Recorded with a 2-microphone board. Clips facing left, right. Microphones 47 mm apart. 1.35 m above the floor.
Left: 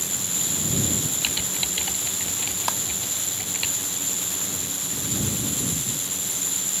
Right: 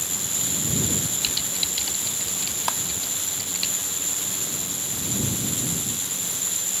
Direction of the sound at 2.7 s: 5° right (ahead or behind).